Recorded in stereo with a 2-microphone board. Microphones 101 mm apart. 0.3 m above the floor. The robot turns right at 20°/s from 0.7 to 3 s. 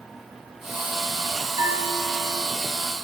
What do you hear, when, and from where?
1.6 s a bell: 50° right (ahead or behind), 1.8 m